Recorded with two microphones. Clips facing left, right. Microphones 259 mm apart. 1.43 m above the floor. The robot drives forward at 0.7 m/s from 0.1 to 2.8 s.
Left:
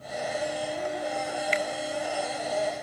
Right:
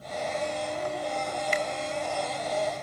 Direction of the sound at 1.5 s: 50° right (ahead or behind).